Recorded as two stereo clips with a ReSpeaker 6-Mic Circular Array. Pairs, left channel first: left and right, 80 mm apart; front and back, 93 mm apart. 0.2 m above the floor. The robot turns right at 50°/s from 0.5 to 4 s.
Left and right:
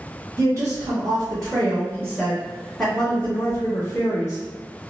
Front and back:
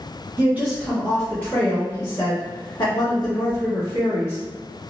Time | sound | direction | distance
0.4 | a woman speaking | 120° right | 1.6 m